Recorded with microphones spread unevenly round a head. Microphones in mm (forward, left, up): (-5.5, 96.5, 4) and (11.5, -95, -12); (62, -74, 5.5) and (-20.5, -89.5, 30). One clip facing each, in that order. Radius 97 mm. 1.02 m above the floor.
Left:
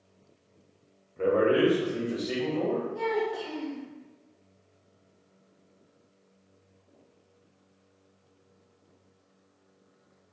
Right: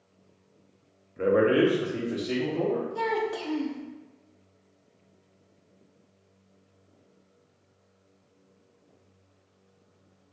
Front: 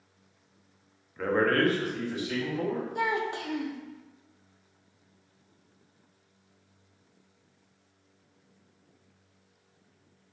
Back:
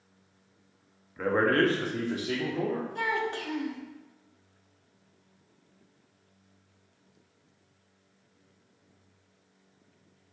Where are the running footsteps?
I don't hear running footsteps.